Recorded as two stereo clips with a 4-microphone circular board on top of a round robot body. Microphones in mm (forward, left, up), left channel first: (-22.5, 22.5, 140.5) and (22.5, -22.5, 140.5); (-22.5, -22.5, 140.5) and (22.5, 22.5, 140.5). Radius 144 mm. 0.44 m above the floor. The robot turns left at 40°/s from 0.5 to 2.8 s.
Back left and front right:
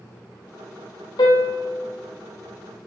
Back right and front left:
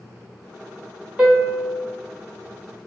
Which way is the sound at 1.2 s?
120° left.